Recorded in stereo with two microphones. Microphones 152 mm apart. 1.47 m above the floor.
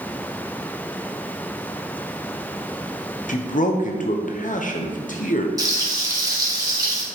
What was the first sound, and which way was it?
A man speaking, 60° left (ahead or behind).